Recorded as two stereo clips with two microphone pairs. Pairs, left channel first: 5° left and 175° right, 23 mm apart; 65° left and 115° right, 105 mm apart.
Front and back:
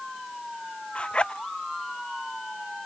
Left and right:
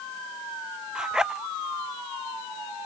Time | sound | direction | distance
0.9 | a zipper | 30° right | ?